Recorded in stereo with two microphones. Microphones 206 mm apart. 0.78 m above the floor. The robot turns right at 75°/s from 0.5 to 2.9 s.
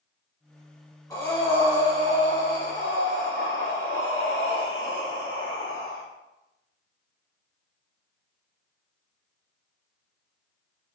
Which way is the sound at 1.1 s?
155° left.